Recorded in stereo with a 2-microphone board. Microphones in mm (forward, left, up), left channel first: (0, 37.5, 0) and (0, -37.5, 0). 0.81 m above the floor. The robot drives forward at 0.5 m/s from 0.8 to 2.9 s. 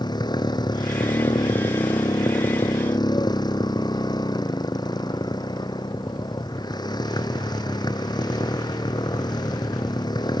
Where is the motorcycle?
70° left (ahead or behind); by 10.4 s 65° left (ahead or behind).